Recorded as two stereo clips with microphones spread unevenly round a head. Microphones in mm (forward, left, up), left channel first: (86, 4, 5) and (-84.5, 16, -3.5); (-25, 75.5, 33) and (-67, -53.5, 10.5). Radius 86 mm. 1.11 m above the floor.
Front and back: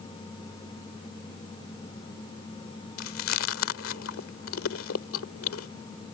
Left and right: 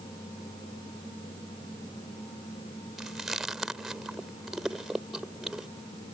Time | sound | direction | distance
3.0 | chewing | 20° right | ?